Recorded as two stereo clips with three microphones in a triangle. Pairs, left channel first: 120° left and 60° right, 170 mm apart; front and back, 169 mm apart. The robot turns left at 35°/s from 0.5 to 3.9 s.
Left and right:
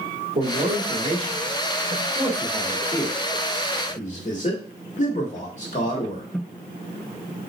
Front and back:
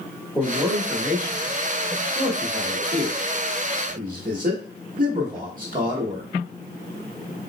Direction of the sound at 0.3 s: 85° right.